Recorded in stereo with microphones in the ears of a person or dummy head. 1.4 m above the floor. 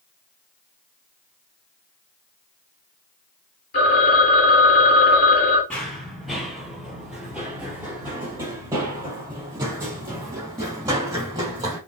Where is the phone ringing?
55° left (ahead or behind), 2 m.